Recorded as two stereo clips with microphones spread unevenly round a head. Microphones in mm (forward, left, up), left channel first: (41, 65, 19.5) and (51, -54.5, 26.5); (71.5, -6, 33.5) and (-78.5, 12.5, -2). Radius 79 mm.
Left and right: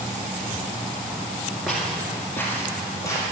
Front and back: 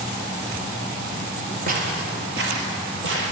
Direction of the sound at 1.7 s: 165° right.